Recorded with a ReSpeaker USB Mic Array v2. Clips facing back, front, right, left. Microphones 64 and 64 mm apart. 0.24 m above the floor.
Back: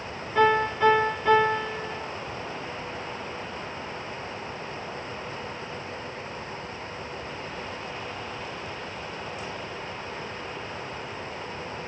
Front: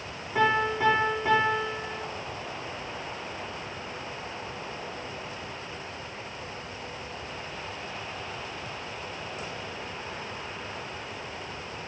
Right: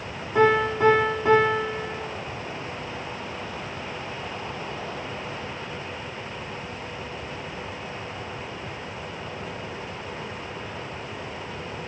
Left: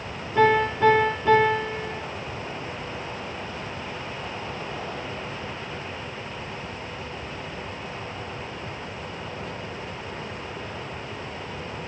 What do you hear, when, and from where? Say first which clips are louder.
0.3 s a piano: back 3 dB, even; 80° right, 5.5 m